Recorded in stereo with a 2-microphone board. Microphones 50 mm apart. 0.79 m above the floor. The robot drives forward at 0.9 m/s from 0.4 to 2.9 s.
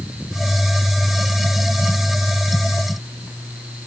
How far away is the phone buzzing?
I don't hear a phone buzzing.